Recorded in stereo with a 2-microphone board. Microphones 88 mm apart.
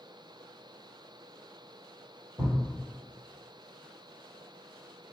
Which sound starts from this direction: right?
A thud, at 2.4 s.